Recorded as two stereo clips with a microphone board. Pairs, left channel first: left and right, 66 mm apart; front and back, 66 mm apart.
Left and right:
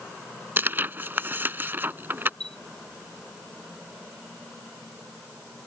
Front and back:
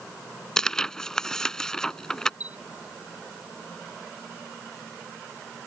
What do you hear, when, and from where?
0.6 s tearing paper: 75° right
2.4 s a chime: 10° left